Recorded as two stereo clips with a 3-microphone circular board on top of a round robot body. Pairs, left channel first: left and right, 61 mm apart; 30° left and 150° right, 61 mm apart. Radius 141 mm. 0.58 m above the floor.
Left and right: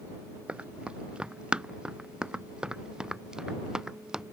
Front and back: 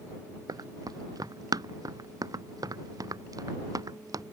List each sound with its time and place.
0.5 s running footsteps: 165° right; by 4.2 s 170° right